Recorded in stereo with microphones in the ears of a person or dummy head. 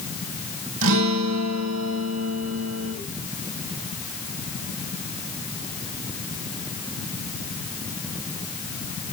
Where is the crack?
No crack in this recording.